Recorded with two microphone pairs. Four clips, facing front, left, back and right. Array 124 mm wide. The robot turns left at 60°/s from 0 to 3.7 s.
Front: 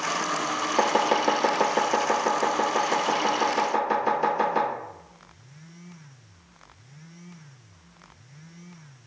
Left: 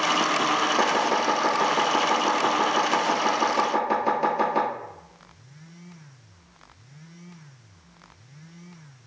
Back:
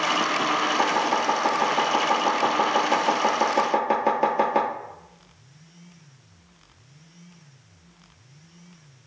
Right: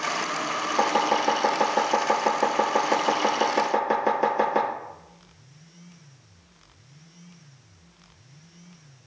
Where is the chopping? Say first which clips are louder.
Even, even; 15° left, 1.4 m; by 4.7 s 160° right, 1.4 m.